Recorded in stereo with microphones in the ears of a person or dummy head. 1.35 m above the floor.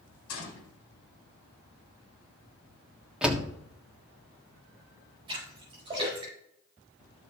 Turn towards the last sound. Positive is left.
turn(degrees=-25)  # may be behind; listen again after turning